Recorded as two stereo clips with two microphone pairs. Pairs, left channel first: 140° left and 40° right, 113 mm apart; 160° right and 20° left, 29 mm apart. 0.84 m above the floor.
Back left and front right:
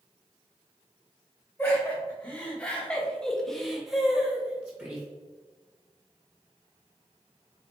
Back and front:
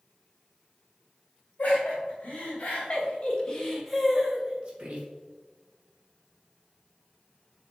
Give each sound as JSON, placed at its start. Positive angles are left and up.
{"t": 1.6, "sound": "laughter", "azimuth_deg": -145, "distance_m": 1.7}